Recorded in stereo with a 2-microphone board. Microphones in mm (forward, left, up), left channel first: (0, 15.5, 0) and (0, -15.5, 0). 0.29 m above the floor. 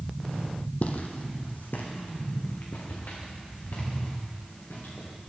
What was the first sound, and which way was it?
Footsteps, 55° left (ahead or behind).